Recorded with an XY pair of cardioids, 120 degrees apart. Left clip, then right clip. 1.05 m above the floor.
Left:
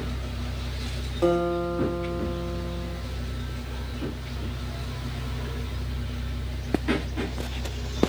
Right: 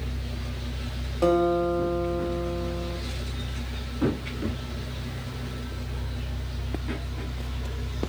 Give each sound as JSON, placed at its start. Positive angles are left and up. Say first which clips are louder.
{"t": 1.2, "sound": "a guitar", "louder": "right 2 dB", "azimuth_deg": -15, "distance_m": 0.8}